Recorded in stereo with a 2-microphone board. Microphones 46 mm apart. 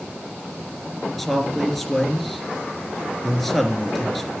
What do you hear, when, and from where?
1.2 s a man speaking: centre (ahead or behind), 3 m